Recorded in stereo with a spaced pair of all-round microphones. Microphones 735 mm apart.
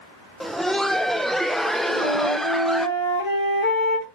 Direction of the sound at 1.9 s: 65° left (ahead or behind).